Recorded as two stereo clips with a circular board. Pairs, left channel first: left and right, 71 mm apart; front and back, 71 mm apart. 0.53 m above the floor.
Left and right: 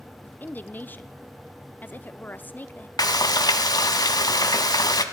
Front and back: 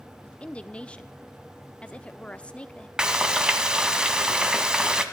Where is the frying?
100° left, 1.1 m.